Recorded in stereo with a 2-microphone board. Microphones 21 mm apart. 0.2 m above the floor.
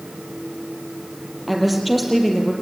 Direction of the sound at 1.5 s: 10° right (ahead or behind).